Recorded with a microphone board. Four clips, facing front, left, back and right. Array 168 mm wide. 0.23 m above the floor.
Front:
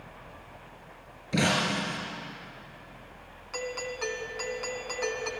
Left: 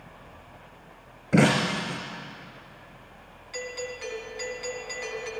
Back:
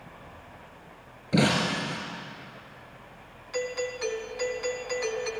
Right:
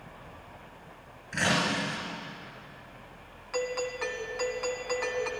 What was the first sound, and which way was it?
Breaking glass, 105° left.